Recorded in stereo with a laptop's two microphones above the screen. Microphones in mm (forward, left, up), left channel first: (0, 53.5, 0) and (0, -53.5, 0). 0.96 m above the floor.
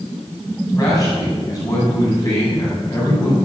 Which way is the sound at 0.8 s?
35° left (ahead or behind).